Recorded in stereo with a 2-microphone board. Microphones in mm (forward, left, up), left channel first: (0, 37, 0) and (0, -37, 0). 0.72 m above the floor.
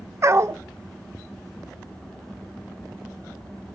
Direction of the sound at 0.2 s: 40° right (ahead or behind).